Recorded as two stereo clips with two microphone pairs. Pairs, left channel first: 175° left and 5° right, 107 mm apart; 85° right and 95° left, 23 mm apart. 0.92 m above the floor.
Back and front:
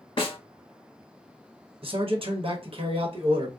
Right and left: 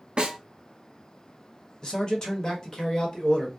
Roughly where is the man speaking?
Ahead right.